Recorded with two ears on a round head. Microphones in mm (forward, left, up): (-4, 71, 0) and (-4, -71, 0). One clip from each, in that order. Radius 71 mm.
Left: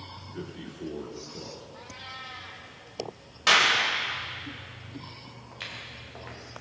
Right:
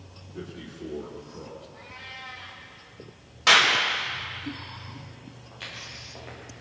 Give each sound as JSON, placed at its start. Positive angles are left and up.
{"t": 0.3, "sound": "a man speaking", "side_deg": 40, "distance_m": 3.0}
{"t": 1.7, "sound": "a cat meowing", "side_deg": 55, "distance_m": 3.0}
{"t": 3.5, "sound": "a clap", "side_deg": -5, "distance_m": 4.5}
{"t": 5.5, "sound": "footsteps", "side_deg": 40, "distance_m": 9.5}